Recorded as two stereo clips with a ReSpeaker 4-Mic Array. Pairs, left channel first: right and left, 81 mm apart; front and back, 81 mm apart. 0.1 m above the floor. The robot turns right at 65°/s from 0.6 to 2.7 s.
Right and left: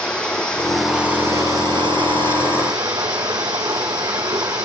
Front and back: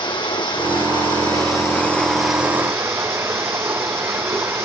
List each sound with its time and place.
0.0 s running water: 15° right, 2 m; by 4.7 s 125° left, 2 m